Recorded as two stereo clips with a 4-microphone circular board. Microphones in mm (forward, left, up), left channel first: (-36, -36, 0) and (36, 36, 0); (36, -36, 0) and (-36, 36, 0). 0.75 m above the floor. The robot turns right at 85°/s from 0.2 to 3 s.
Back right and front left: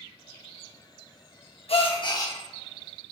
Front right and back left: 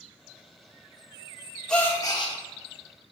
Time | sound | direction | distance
1.7 | a gasp | 125° right | 0.5 m